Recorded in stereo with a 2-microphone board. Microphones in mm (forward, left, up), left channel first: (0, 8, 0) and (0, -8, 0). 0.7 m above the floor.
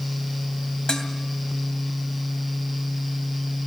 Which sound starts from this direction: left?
Dishes clattering, at 0.9 s.